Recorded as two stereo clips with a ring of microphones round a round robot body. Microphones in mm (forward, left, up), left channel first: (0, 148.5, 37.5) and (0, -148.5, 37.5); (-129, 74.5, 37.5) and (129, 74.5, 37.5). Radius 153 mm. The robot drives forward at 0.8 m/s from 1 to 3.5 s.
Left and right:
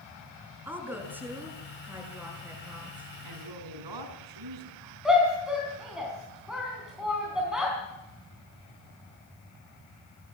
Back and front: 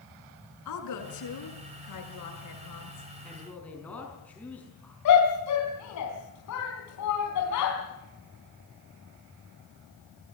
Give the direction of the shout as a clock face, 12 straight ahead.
6 o'clock.